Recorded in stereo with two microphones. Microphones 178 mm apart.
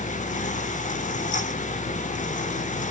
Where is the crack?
I don't hear a crack.